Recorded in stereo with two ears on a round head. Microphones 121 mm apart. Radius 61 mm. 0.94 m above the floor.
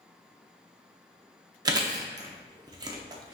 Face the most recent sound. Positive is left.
turn(degrees=-30)  # may be behind; listen again after turning